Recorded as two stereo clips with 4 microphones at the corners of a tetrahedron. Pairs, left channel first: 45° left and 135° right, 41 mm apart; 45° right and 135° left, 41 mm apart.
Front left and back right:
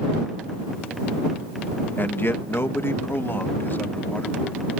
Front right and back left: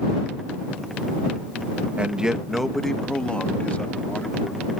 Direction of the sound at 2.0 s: 80° left.